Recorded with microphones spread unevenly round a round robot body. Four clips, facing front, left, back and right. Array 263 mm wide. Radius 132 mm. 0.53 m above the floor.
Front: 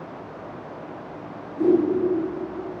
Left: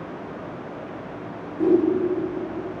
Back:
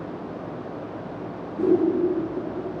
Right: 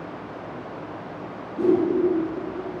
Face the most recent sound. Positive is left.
turn(degrees=-110)